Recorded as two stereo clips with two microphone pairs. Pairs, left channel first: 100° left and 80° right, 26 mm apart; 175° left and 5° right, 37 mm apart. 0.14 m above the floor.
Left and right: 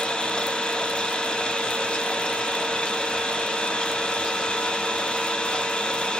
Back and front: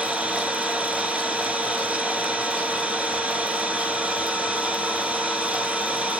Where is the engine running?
50° left, 1.4 m.